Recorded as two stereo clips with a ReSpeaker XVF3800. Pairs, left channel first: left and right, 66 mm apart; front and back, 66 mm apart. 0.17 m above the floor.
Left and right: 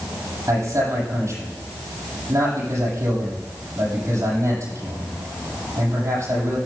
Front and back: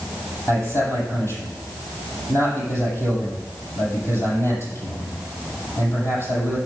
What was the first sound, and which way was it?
A man speaking, 45° right.